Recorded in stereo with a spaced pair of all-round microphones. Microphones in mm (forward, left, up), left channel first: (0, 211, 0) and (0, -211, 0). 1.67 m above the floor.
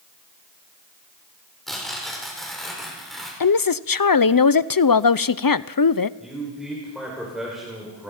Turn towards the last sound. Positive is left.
turn(degrees=0)  # may be behind; listen again after turning